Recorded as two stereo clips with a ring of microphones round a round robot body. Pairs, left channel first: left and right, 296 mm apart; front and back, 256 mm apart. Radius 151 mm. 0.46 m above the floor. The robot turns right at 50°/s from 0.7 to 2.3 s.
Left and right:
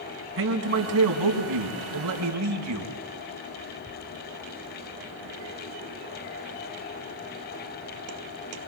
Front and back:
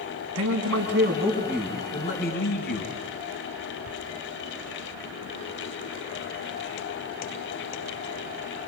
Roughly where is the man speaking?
Behind right.